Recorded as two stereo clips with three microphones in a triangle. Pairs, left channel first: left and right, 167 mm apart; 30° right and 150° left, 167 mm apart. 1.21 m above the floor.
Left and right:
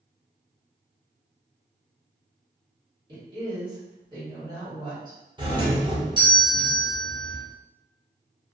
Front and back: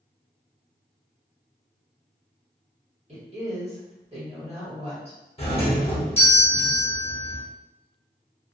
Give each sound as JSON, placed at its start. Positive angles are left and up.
{"t": 3.1, "sound": "a woman speaking", "azimuth_deg": -155, "distance_m": 1.4}
{"t": 5.4, "sound": "a doorbell", "azimuth_deg": -45, "distance_m": 0.8}